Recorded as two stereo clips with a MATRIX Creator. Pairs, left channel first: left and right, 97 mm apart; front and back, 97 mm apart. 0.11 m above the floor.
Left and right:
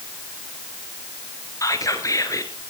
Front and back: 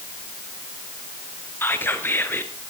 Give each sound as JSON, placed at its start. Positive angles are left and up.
{"t": 1.6, "sound": "whispering", "azimuth_deg": 55, "distance_m": 2.0}